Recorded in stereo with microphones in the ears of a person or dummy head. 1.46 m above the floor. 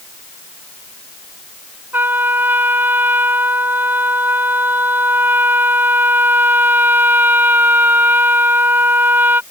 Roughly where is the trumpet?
Centre.